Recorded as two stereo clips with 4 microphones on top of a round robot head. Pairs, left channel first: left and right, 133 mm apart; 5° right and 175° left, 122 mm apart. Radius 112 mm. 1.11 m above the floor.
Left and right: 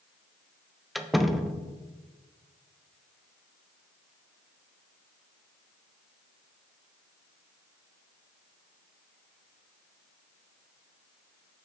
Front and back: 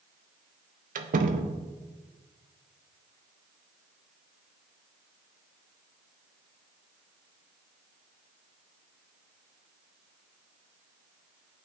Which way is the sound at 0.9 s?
Straight behind.